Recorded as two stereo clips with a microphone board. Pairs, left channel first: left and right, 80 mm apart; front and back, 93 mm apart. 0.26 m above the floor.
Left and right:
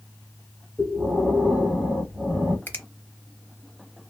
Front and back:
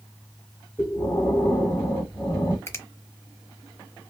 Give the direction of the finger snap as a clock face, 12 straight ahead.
11 o'clock.